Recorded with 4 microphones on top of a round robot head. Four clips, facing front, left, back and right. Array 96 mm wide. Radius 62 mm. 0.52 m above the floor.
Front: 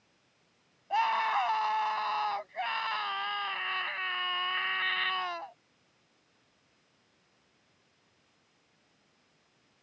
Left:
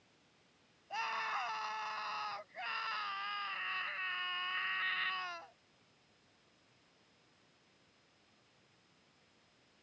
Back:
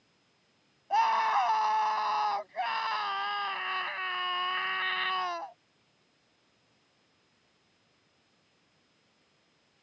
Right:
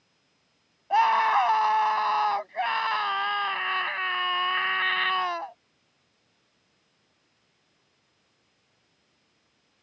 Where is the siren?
No siren in this recording.